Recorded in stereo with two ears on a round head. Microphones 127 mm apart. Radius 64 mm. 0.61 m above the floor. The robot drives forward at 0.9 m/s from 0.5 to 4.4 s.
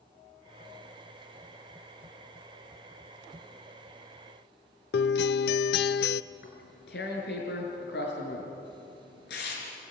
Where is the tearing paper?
85° left, 5.5 m.